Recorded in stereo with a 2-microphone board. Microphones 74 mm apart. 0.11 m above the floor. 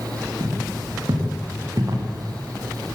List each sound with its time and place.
0.4 s footsteps: 60° right (ahead or behind), 6 m; by 2.0 s 50° right (ahead or behind), 5.5 m